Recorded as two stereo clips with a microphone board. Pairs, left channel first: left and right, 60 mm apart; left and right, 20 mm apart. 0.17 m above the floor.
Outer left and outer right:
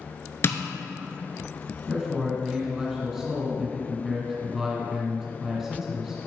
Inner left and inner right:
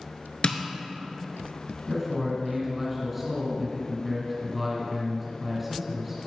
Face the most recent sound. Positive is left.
turn(degrees=-5)  # may be behind; listen again after turning